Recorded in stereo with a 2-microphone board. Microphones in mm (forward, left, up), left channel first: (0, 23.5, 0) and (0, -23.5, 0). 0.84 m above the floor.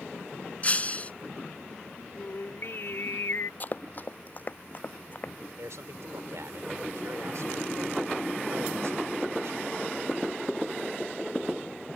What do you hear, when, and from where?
0.6 s breaking glass: 30° left (ahead or behind)
2.1 s singing: 55° left (ahead or behind)
3.6 s running footsteps: 40° left (ahead or behind)
5.6 s a man speaking: 80° right